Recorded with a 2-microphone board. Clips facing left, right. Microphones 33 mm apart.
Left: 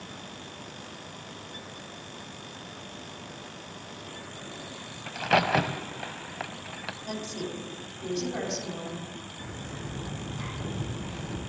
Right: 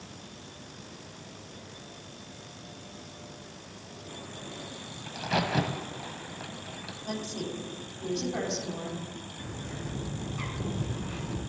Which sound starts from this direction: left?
A crack, at 5.1 s.